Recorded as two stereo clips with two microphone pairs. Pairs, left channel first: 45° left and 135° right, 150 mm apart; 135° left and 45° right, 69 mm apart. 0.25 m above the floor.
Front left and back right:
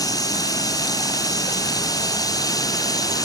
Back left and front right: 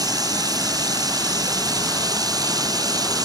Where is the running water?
25° right.